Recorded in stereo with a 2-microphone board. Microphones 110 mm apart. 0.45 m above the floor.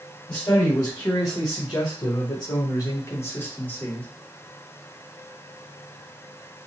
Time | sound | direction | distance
0.3 | a man speaking | 30° left (ahead or behind) | 1.8 m